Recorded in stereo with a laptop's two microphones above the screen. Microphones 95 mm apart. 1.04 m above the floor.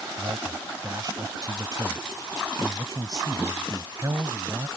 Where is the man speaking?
45° right (ahead or behind).